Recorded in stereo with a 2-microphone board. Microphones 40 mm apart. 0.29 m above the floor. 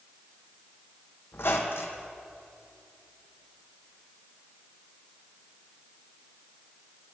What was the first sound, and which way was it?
A squeak, 75° left (ahead or behind).